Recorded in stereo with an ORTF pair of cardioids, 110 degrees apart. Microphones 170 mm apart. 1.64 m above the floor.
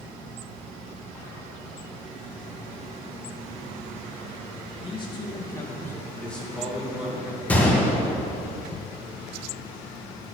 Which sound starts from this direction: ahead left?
A man speaking, at 4.8 s.